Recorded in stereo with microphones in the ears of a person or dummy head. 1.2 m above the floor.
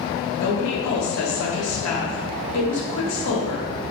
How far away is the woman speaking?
About 1.3 m.